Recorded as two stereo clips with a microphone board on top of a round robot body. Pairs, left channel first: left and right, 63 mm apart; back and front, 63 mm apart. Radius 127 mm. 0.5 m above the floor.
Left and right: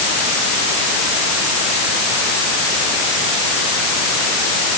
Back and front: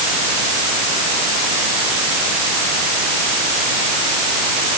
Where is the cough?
No cough in this recording.